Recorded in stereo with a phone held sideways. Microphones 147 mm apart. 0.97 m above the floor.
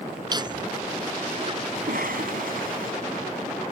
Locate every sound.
0.3 s laughter: 30° right (ahead or behind); by 1.6 s 40° right (ahead or behind)
1.8 s a cough: 75° right (ahead or behind)